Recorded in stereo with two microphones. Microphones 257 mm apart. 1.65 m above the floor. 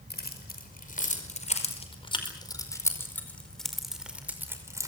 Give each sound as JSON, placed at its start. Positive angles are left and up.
{"t": 0.1, "sound": "keys jangling", "side_deg": 40, "distance_m": 5.5}